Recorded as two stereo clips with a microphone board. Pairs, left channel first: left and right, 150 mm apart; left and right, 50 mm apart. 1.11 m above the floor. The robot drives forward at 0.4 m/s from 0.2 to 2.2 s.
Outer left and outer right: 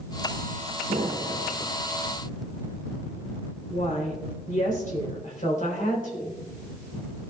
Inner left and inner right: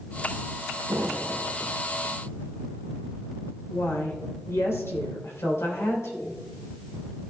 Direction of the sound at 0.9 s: 70° right (ahead or behind).